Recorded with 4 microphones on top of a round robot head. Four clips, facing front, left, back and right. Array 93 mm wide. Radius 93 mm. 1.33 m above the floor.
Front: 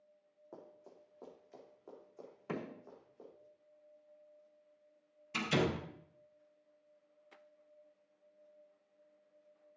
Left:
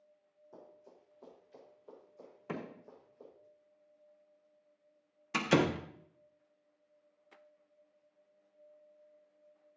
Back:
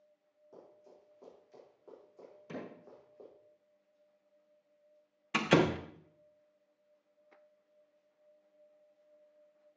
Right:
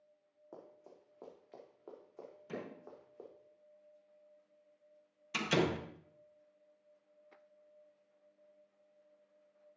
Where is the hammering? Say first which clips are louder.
Left 3 dB, front 3 dB; 45° left, 3.5 m.